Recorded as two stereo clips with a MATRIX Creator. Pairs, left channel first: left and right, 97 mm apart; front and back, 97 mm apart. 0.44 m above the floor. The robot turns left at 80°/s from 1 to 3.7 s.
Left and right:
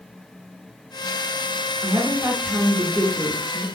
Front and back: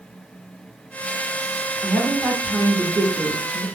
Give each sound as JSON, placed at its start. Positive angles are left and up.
{"t": 1.8, "sound": "a woman speaking", "azimuth_deg": -60, "distance_m": 0.7}